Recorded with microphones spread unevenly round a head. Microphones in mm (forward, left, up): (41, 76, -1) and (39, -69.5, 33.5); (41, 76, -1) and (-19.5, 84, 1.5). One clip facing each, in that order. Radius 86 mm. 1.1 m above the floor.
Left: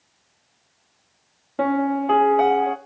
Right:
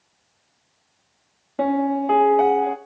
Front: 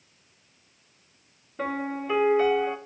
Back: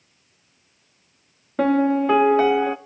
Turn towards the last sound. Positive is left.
turn(degrees=-175)